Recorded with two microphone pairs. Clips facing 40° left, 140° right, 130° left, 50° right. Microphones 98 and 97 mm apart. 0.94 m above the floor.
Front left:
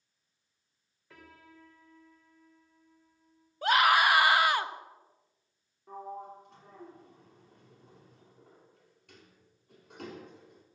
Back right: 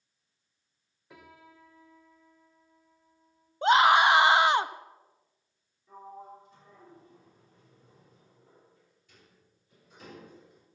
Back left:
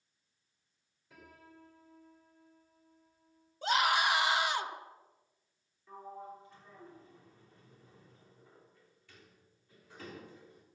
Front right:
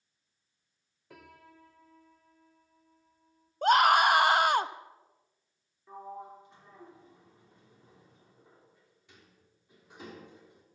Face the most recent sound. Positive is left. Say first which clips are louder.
# front left 4 dB, front right 3 dB
turn(degrees=20)